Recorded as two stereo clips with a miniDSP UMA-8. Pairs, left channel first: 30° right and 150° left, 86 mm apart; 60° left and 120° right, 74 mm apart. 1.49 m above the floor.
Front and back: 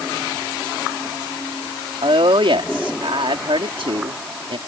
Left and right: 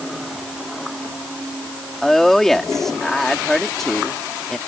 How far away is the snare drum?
I don't hear a snare drum.